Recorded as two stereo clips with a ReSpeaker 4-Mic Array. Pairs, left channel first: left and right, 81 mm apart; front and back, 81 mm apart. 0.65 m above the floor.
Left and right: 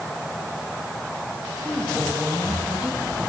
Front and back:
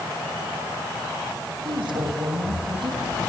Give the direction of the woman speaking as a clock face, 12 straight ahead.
6 o'clock.